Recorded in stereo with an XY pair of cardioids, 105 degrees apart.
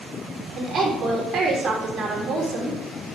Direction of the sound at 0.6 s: 40° right.